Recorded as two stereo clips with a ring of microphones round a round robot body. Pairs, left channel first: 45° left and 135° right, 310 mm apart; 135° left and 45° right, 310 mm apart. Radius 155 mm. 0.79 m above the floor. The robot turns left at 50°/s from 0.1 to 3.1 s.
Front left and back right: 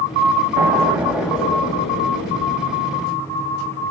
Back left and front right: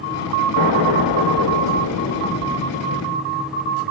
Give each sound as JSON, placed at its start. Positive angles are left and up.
{"t": 0.6, "sound": "an explosion", "azimuth_deg": 170, "distance_m": 0.8}